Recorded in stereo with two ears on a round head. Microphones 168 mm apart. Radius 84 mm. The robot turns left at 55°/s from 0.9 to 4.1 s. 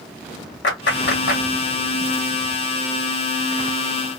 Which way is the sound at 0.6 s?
65° left (ahead or behind).